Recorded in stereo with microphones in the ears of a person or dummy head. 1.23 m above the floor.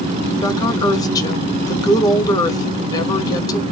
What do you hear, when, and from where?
0.4 s a woman speaking: 15° left (ahead or behind), 1.5 m